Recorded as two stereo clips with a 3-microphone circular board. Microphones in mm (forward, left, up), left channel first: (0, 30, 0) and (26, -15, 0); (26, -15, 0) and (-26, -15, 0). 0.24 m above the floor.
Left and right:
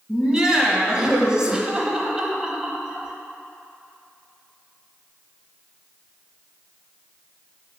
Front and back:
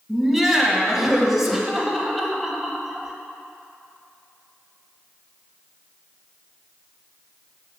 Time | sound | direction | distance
0.1 | laughter | 100° right | 0.9 m